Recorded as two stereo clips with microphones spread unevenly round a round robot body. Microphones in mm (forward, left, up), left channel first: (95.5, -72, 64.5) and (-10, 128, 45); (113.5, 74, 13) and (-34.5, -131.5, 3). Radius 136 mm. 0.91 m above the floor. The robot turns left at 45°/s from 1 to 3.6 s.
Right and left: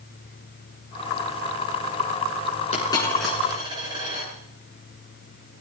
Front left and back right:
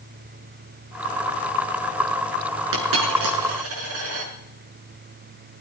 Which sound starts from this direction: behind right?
A dropped coin, at 2.7 s.